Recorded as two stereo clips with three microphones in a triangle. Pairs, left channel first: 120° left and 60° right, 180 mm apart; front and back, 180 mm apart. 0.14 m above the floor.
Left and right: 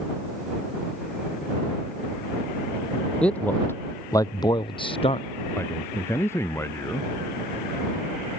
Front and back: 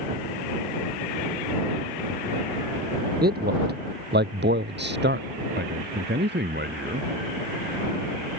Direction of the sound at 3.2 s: 155° right.